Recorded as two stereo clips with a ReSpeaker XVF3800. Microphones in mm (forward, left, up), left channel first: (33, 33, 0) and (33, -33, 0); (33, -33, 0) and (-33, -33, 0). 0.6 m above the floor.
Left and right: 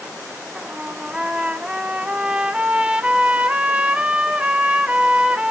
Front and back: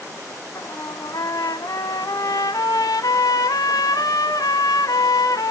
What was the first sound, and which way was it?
A trumpet, 15° right.